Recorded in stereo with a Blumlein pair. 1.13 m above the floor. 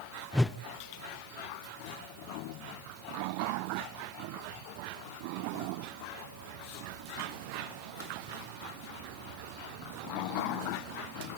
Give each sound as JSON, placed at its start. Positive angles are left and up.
{"t": 0.3, "sound": "a whoosh", "azimuth_deg": 5, "distance_m": 0.5}